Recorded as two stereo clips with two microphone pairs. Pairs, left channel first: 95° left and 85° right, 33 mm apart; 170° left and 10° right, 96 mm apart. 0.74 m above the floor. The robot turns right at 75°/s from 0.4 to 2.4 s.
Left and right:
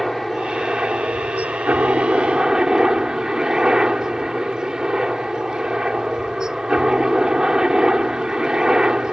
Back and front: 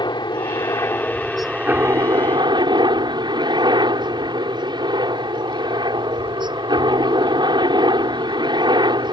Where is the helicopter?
175° right; by 9.1 s 25° right.